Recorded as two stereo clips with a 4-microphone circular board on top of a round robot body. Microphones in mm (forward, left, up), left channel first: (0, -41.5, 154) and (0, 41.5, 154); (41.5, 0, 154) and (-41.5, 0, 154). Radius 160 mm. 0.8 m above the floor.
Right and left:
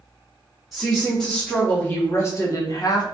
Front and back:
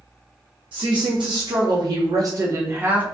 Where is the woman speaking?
Straight behind, 1.7 m; by 3.0 s 115° right, 1.1 m.